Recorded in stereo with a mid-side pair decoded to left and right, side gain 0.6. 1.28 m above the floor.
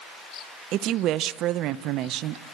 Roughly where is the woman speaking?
Ahead right.